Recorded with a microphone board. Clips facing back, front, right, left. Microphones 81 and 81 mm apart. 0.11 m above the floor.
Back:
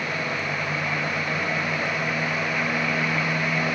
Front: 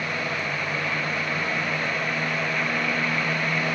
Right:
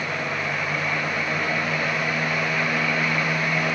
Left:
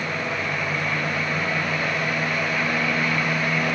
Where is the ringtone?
No ringtone in this recording.